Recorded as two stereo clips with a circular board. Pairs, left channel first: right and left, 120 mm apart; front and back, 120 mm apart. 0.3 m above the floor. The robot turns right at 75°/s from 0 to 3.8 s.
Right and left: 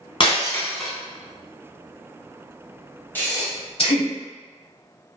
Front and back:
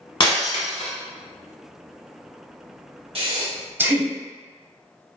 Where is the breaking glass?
50° right, 0.7 m; by 0.9 s 5° left, 0.7 m.